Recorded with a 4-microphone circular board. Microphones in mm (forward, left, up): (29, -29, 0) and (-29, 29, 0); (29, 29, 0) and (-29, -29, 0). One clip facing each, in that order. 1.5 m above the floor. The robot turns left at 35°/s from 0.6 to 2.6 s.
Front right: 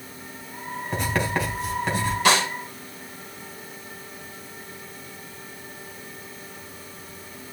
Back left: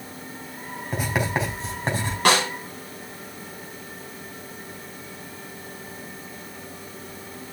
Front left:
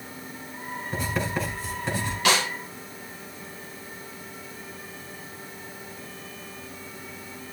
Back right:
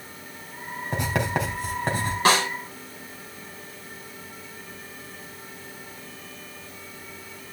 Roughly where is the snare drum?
Behind.